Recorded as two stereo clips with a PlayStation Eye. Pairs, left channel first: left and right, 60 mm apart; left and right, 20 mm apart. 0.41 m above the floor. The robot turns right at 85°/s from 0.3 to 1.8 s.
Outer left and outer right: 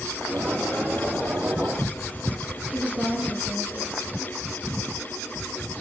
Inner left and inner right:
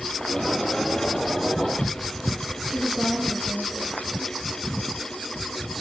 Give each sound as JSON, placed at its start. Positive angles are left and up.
{"t": 2.7, "sound": "a woman speaking", "side_deg": -25, "distance_m": 9.0}